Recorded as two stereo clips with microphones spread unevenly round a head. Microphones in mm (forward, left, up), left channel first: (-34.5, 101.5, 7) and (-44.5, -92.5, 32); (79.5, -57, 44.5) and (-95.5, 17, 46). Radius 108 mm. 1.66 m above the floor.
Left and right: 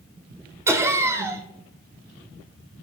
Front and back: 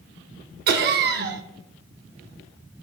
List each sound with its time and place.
0.7 s laughter: 170° right, 0.7 m